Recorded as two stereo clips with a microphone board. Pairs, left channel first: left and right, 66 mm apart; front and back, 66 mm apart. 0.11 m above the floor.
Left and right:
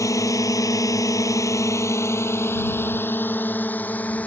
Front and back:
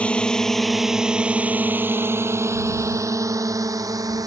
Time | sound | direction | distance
0.0 | a drone | 70° left | ?